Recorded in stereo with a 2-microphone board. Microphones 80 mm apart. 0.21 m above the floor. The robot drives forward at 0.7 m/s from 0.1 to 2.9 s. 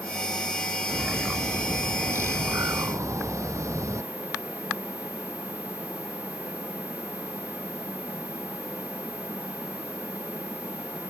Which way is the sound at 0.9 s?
30° right (ahead or behind).